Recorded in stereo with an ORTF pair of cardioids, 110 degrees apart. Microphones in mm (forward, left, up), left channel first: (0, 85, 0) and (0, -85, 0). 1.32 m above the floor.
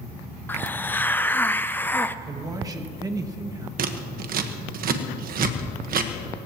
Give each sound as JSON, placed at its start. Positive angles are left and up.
{"t": 0.5, "sound": "a hiss", "azimuth_deg": 10, "distance_m": 0.5}
{"t": 2.2, "sound": "a man speaking", "azimuth_deg": -20, "distance_m": 1.8}
{"t": 3.8, "sound": "scissors", "azimuth_deg": -55, "distance_m": 1.4}